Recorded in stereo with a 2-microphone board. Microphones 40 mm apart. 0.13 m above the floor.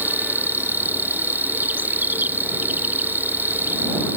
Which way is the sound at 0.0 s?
50° right (ahead or behind).